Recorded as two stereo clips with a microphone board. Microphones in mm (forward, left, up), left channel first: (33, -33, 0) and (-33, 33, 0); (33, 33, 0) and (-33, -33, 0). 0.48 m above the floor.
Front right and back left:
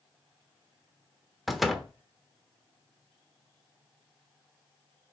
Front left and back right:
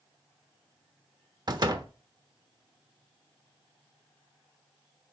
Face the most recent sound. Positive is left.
turn(degrees=-135)